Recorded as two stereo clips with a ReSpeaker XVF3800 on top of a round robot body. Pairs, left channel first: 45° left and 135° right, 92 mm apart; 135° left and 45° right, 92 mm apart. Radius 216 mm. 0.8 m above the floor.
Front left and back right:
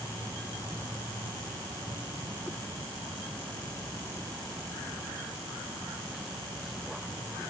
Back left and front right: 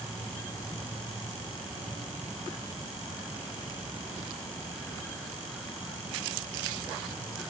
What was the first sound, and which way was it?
Only background noise.